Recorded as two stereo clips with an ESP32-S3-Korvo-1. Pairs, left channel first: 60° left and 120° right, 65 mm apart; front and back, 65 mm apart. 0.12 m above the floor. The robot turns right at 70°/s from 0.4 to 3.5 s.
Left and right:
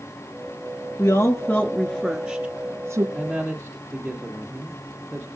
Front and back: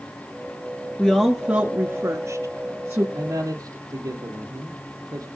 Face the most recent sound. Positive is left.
turn(degrees=160)